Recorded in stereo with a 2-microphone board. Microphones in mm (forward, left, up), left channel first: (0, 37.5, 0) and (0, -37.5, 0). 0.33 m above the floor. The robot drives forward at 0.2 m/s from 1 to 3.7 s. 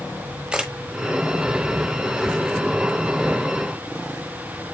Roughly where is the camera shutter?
Centre.